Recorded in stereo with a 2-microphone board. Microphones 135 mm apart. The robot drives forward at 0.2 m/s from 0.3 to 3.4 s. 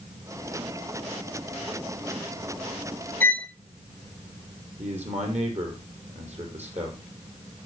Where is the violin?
15° left (ahead or behind), 0.6 m; by 3.5 s 10° left (ahead or behind), 0.6 m.